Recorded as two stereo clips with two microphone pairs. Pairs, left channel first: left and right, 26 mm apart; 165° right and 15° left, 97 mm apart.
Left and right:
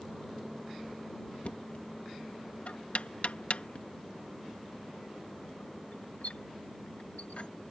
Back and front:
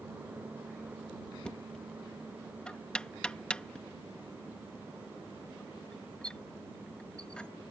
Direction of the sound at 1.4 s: 115° left.